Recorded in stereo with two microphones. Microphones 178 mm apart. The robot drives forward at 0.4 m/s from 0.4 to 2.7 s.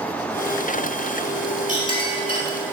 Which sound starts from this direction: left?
A clink, at 1.7 s.